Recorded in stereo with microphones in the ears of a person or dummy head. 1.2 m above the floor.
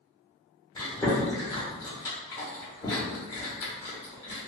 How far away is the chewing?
About 0.9 m.